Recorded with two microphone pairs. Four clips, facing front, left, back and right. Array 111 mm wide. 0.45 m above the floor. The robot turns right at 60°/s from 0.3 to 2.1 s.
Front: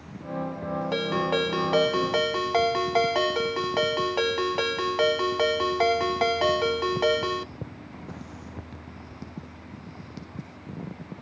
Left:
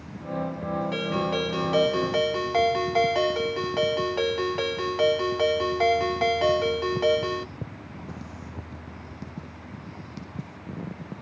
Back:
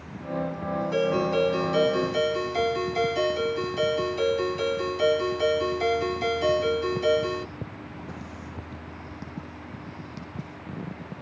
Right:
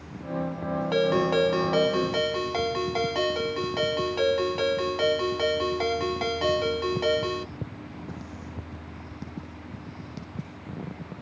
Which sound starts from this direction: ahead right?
A ringtone, at 0.9 s.